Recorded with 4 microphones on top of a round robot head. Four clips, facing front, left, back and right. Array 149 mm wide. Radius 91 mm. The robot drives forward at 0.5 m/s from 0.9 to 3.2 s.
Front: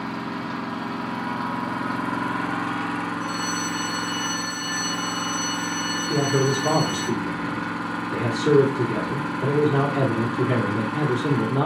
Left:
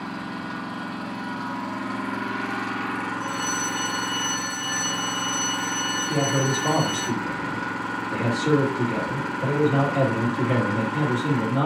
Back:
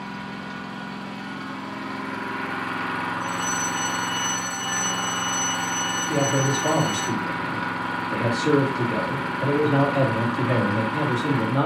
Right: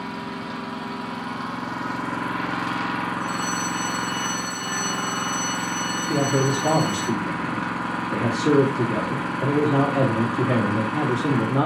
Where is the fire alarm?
165° right, 3 m.